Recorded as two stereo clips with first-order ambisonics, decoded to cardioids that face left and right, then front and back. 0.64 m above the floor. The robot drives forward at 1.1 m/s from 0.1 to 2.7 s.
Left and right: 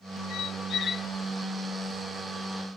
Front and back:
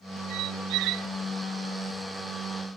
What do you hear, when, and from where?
0.3 s a squeak: 140° left; by 1.1 s 155° left